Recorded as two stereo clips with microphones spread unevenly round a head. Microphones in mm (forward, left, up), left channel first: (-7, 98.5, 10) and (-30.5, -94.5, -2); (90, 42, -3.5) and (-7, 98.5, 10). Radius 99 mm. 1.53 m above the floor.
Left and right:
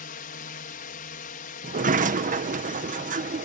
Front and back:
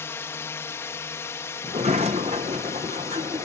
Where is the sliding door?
150° right.